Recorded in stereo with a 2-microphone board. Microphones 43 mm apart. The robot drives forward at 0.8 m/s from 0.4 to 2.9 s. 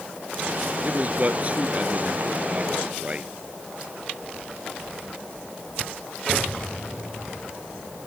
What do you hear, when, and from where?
0.8 s a man speaking: 30° right (ahead or behind)